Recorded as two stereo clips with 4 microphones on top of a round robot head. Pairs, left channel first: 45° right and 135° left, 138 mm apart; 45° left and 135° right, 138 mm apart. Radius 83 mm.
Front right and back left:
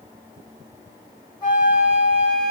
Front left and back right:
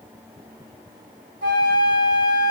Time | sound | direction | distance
1.4 | a flute | 110° right | 1.9 m